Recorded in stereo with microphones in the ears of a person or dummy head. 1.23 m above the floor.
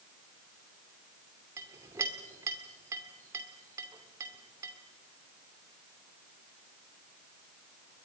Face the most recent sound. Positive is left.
turn(degrees=-15)  # may be behind; listen again after turning